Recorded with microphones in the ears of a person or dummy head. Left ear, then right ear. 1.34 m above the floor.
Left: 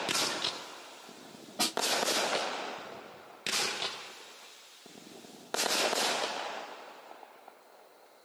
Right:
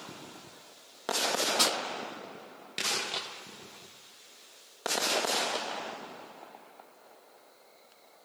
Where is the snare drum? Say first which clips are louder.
Right 3 dB; 60° right (ahead or behind), 6 m.